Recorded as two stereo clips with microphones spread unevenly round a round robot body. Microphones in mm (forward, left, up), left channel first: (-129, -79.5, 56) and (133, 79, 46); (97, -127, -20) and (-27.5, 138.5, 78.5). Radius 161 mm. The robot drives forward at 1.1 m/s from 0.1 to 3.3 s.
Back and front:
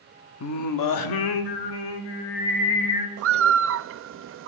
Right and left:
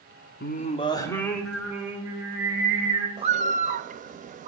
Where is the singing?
110° right, 1.1 m; by 3.1 s 165° right, 3.5 m.